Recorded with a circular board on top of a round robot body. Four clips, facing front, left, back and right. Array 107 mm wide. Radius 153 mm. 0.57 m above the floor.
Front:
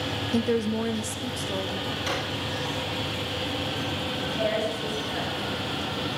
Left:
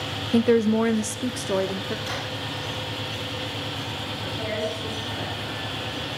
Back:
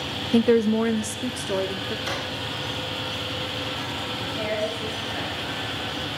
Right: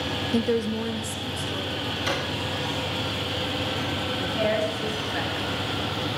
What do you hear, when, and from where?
0.3 s a woman speaking: 155° left, 0.6 m; by 2.0 s 105° left, 1.4 m
2.1 s a drawer: 60° right, 5.5 m
4.2 s a woman speaking: 80° right, 9.5 m